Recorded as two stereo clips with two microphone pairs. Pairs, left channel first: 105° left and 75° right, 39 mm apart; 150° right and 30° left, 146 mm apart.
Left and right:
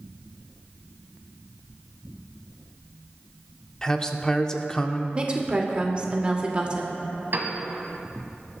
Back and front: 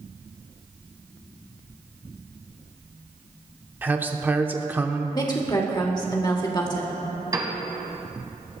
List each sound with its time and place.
3.8 s a man speaking: 85° left, 0.7 m
5.2 s a woman speaking: 110° right, 1.5 m
7.3 s a piano: 35° right, 1.6 m